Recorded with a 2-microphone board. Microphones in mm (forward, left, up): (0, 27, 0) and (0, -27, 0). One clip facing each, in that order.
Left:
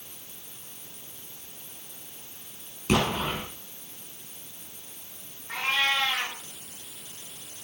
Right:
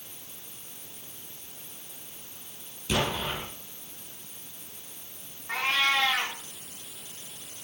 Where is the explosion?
50° left (ahead or behind), 4 m.